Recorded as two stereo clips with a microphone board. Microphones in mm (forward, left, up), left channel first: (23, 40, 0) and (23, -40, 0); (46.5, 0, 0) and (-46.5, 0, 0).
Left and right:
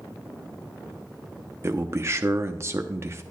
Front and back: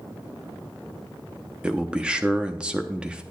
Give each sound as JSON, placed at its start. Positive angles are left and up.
{"t": 1.6, "sound": "a man speaking", "azimuth_deg": -110, "distance_m": 0.7}